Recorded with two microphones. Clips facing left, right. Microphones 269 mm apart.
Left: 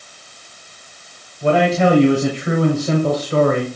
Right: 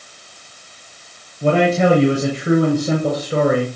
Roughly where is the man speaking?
Right.